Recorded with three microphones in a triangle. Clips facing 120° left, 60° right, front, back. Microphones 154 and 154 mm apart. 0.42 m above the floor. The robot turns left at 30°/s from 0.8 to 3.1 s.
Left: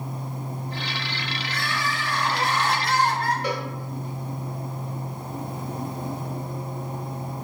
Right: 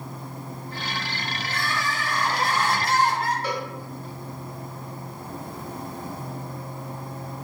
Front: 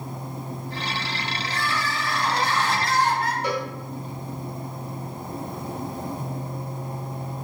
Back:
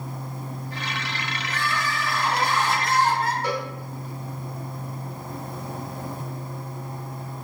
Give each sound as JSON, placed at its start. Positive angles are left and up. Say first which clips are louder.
{"t": 1.4, "sound": "crying", "louder": "right 1 dB, back 1 dB", "azimuth_deg": -75, "distance_m": 0.8}
{"t": 3.4, "sound": "a cowbell", "louder": "left 1 dB, front 1 dB", "azimuth_deg": 60, "distance_m": 1.2}